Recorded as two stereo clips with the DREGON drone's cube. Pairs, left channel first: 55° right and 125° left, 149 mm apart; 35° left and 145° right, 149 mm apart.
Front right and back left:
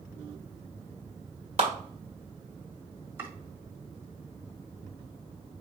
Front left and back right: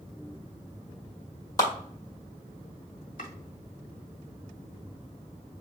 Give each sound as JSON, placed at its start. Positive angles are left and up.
{"t": 1.6, "sound": "a clap", "azimuth_deg": 95, "distance_m": 1.5}
{"t": 3.2, "sound": "chopping", "azimuth_deg": 50, "distance_m": 1.3}